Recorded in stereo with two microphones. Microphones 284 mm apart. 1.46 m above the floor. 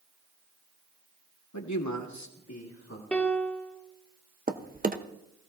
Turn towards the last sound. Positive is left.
turn(degrees=-30)  # may be behind; listen again after turning